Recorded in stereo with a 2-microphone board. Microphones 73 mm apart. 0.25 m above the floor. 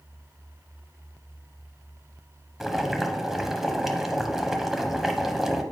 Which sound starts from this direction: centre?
Boiling, at 2.6 s.